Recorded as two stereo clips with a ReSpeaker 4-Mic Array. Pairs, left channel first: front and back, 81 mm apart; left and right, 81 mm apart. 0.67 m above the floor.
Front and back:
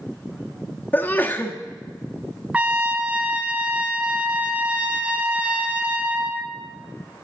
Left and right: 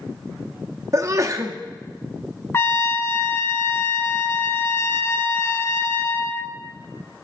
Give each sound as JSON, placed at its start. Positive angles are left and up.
{"t": 0.9, "sound": "a sneeze", "azimuth_deg": -60, "distance_m": 0.8}
{"t": 2.5, "sound": "a trumpet", "azimuth_deg": 120, "distance_m": 1.0}